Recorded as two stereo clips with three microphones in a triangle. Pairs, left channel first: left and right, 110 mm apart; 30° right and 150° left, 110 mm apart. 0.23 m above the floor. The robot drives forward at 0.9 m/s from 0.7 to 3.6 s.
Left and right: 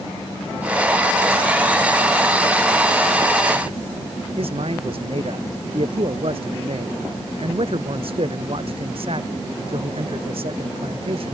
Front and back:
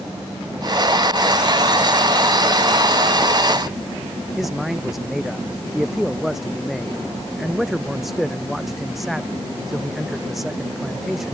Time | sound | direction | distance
4.4 | a man speaking | 125° right | ?